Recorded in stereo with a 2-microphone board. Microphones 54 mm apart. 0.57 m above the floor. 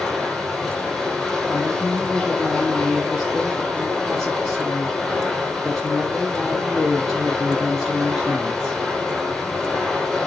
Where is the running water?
5° left (ahead or behind), 4.5 m.